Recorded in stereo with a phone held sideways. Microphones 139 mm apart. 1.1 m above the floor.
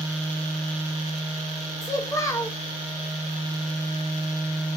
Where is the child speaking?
20° left (ahead or behind), 0.7 m.